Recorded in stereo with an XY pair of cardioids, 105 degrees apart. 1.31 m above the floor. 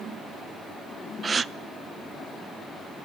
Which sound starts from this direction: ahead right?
A gasp, at 1.2 s.